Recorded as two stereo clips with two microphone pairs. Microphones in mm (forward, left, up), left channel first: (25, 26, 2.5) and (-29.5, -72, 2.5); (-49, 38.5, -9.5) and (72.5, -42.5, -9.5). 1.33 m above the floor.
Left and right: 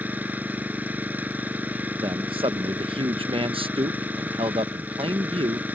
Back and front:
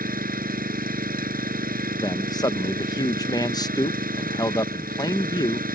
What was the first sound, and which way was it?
An engine running, 45° right.